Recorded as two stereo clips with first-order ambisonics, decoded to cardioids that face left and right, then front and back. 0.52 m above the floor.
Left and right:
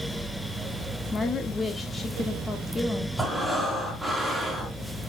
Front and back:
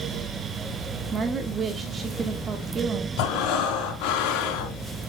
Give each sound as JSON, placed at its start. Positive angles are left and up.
{"t": 1.1, "sound": "a woman speaking", "azimuth_deg": 150, "distance_m": 1.0}
{"t": 3.2, "sound": "breathing", "azimuth_deg": 0, "distance_m": 2.0}